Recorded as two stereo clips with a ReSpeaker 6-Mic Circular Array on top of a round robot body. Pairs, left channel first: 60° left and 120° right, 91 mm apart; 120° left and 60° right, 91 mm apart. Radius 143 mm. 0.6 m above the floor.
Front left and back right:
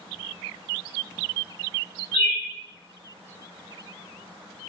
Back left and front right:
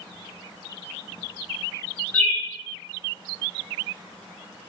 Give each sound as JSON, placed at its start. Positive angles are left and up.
{"t": 2.1, "sound": "a bird", "azimuth_deg": 50, "distance_m": 0.8}